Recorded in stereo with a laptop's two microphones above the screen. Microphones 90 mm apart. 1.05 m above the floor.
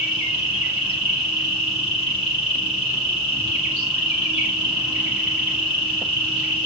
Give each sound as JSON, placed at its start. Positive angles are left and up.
{"t": 0.0, "sound": "an insect", "side_deg": -10, "distance_m": 1.3}